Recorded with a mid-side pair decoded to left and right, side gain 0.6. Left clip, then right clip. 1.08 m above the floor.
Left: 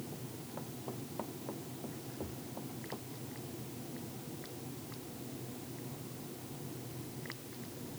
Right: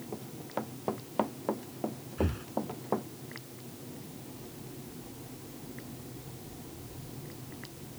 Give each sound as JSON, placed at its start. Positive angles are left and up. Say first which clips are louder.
{"t": 0.1, "sound": "running footsteps", "louder": "right 8 dB", "azimuth_deg": -55}
{"t": 2.2, "sound": "breathing", "louder": "right 14 dB", "azimuth_deg": -70}